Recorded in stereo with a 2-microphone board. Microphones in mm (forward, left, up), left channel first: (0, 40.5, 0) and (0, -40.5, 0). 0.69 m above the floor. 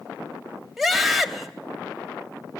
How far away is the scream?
About 3 m.